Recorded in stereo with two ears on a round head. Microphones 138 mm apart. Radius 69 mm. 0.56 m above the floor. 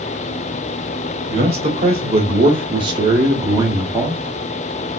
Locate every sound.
1.3 s a man speaking: 40° right (ahead or behind), 1.5 m; by 4.2 s 10° right (ahead or behind), 1.2 m